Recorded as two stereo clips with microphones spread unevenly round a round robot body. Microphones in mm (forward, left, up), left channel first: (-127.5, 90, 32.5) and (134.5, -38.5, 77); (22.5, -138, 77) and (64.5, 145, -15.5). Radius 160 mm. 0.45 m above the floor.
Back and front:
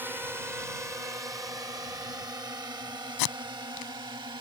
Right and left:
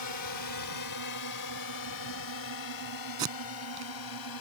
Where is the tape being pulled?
160° left.